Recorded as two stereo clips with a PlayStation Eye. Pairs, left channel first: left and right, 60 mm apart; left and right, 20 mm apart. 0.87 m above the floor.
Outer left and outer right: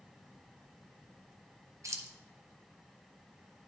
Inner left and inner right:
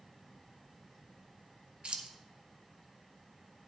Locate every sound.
1.8 s keys jangling: 60° right (ahead or behind), 0.8 m